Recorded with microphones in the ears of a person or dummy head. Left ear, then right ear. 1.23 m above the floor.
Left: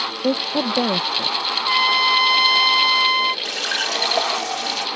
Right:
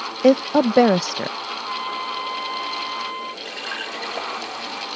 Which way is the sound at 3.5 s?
45° left (ahead or behind).